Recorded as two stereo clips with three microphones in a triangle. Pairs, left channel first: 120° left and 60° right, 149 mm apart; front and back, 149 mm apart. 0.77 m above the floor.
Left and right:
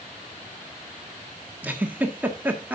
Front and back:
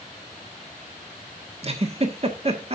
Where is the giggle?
135° right, 1.3 m.